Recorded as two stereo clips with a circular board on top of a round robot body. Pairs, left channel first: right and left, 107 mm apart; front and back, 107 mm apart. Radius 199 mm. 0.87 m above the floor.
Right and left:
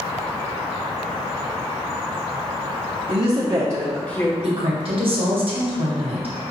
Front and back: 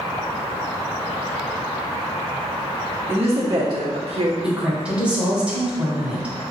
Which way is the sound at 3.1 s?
110° left.